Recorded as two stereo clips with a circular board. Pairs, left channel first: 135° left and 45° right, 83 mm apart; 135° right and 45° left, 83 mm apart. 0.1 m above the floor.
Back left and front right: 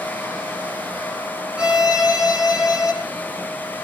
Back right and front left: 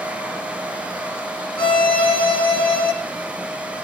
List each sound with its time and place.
1.6 s a violin: 120° right, 3.5 m